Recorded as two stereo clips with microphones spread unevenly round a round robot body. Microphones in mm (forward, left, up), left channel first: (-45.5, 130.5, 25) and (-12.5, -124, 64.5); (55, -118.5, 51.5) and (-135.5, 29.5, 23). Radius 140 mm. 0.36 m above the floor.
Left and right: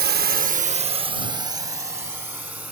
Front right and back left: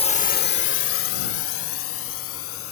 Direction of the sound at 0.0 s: 90° right.